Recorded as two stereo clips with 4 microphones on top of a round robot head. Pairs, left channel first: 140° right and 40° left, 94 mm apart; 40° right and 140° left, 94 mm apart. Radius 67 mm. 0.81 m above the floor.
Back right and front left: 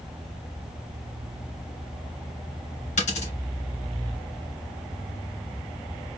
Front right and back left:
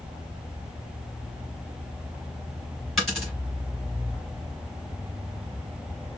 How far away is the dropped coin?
About 2.5 m.